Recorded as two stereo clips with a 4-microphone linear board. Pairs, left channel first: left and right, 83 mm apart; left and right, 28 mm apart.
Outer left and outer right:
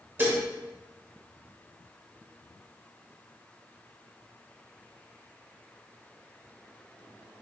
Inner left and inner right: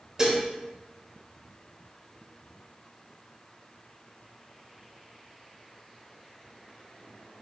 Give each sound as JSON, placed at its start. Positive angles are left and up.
{"t": 0.2, "sound": "dishes clattering", "side_deg": -30, "distance_m": 0.8}